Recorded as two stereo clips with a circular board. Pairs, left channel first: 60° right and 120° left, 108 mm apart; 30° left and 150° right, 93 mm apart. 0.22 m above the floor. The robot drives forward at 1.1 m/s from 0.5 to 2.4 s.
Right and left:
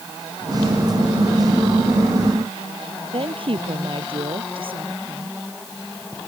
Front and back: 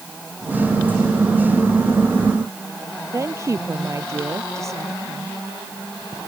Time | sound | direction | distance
3.1 | a woman speaking | 155° left | ?